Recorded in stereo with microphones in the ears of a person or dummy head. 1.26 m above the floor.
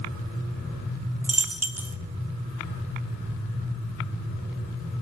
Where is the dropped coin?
10° right (ahead or behind), 0.6 m.